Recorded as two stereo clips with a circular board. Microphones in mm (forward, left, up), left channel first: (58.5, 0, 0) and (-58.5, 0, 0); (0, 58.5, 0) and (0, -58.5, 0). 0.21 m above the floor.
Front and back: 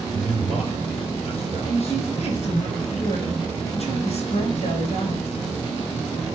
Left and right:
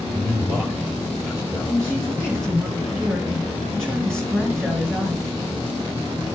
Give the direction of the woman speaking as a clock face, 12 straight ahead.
12 o'clock.